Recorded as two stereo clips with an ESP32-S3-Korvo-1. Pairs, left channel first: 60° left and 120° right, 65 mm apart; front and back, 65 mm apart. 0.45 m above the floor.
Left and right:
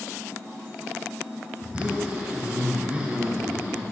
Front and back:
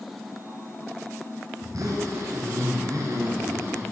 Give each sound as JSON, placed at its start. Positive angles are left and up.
{"t": 1.6, "sound": "a zipper", "azimuth_deg": 175, "distance_m": 1.0}